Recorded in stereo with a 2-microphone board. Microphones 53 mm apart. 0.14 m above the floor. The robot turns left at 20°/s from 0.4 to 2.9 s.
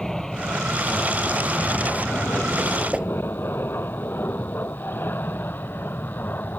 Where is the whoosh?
20° right (ahead or behind).